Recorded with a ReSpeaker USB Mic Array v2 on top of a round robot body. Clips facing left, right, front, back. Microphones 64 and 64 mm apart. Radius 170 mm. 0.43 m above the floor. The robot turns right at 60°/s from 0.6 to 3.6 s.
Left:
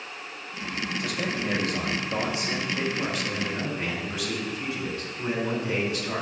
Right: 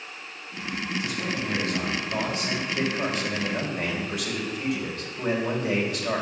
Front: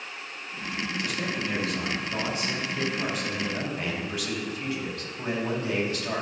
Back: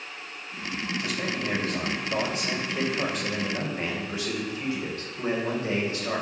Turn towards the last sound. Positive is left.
turn(degrees=-115)